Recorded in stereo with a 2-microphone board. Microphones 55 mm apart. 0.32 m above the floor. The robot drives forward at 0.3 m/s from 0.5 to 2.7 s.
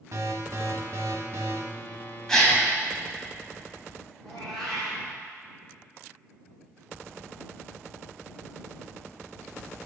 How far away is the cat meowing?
About 3 m.